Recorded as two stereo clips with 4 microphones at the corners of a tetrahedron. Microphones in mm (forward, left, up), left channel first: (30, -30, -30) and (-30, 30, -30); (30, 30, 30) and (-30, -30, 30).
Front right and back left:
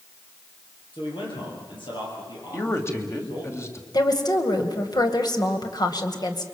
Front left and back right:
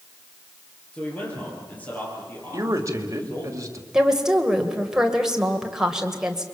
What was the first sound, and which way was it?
A man speaking, 30° right.